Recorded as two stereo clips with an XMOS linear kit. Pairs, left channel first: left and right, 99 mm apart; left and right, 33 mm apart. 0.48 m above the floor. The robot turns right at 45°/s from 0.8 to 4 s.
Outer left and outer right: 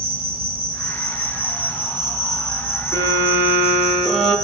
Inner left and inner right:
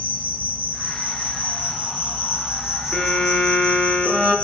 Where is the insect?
100° right, 6.5 m; by 4.5 s 45° left, 6.5 m.